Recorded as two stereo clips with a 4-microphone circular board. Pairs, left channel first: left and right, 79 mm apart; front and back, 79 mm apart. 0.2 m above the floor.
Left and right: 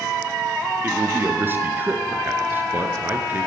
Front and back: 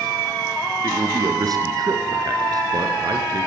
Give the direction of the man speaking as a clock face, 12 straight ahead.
5 o'clock.